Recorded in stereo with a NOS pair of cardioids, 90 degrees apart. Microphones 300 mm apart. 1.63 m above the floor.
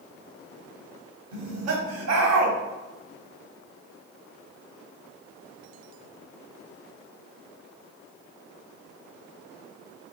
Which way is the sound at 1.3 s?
60° right.